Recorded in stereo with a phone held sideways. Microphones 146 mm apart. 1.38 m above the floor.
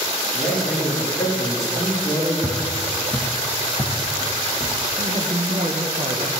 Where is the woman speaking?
45° right (ahead or behind), 0.9 m.